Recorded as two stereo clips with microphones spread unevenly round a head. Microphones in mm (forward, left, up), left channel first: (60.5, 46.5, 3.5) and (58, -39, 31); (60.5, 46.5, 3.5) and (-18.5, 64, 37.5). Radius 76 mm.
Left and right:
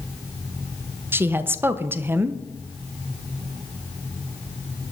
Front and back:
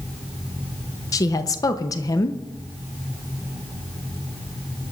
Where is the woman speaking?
20° right, 1.0 m.